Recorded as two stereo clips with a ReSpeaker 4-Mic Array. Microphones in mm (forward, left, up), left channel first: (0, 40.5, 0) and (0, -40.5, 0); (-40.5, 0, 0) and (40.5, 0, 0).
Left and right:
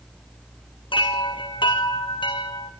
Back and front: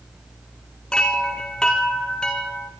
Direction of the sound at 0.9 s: 100° left.